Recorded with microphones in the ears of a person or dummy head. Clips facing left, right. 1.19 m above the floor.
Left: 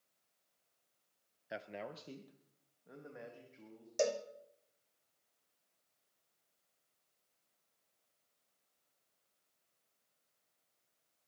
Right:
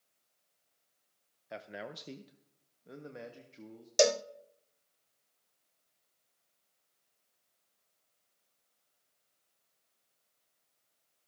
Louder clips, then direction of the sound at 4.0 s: Right 7 dB; 75° right (ahead or behind).